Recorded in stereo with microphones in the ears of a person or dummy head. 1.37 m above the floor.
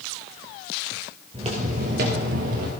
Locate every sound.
1.3 s footsteps: 25° right (ahead or behind), 1.7 m; by 2.7 s 50° right (ahead or behind), 2 m